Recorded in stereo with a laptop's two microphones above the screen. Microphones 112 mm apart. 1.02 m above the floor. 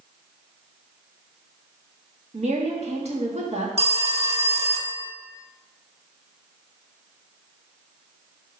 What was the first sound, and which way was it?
A woman speaking, 70° right (ahead or behind).